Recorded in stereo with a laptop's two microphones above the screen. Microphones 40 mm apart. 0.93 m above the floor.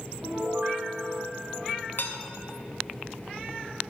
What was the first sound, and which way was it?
A piano, 55° right (ahead or behind).